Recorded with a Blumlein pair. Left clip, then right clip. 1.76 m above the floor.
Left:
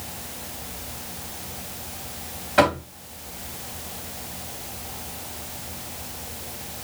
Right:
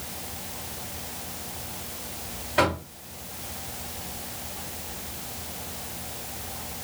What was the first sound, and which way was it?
Knocking, 25° left.